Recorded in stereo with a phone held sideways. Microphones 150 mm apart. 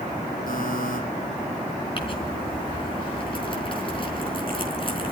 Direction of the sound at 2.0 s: 35° left (ahead or behind).